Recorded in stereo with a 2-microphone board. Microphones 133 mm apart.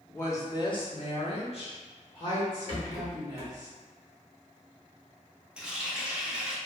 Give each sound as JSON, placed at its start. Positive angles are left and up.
{"t": 0.1, "sound": "a woman speaking", "side_deg": 15, "distance_m": 0.7}
{"t": 2.7, "sound": "a rattle", "side_deg": 50, "distance_m": 0.9}
{"t": 5.6, "sound": "a running tap", "side_deg": -5, "distance_m": 0.5}